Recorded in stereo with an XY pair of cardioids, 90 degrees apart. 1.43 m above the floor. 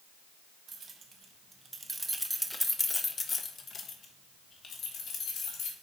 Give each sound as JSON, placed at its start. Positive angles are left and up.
{"t": 0.7, "sound": "keys jangling", "azimuth_deg": -55, "distance_m": 1.3}